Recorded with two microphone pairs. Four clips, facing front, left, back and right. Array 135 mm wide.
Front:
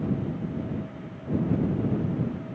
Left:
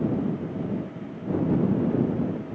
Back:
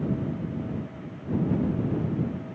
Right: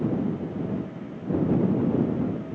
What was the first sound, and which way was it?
Only background noise.